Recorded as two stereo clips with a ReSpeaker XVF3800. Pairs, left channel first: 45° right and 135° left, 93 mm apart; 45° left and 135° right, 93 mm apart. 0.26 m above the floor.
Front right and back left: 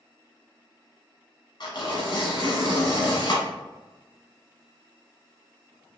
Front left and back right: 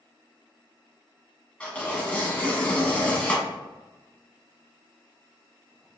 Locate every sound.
1.6 s tearing paper: 30° right, 1.2 m